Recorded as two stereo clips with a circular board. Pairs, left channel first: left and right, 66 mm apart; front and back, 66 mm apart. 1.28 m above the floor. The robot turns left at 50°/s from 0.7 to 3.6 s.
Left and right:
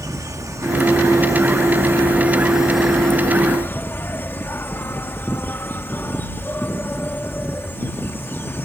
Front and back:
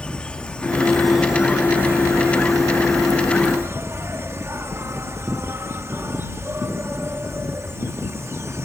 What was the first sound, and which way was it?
An insect, 75° right.